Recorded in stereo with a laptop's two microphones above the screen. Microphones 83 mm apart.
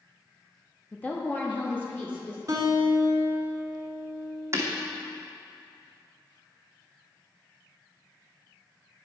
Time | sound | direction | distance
0.9 | a woman speaking | 20° left (ahead or behind) | 1.0 m
2.5 | a guitar | 45° right (ahead or behind) | 1.5 m
4.5 | breaking glass | 35° right (ahead or behind) | 2 m